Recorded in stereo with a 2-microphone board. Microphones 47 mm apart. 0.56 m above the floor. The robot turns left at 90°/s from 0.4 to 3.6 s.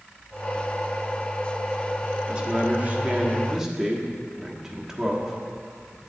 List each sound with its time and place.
2.3 s a man speaking: 20° right (ahead or behind), 1.1 m; by 6.1 s 10° right (ahead or behind), 1.1 m